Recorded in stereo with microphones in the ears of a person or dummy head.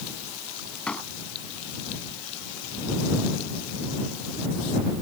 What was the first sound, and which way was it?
A door slam, 5° left (ahead or behind).